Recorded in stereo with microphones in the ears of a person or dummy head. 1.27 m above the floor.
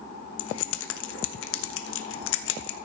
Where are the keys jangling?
85° left, 1.1 m.